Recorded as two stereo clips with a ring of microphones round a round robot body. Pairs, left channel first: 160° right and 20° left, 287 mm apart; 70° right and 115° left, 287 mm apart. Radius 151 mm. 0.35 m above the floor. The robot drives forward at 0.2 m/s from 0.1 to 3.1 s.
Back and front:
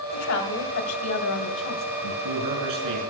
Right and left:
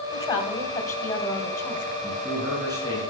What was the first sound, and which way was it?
A woman speaking, 145° right.